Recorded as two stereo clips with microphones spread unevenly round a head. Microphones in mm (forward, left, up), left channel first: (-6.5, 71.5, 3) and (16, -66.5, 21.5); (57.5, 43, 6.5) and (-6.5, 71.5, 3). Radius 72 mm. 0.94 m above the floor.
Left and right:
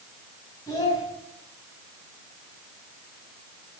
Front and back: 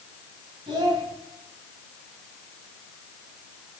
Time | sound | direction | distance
0.7 | a child speaking | 170° left | 3.5 m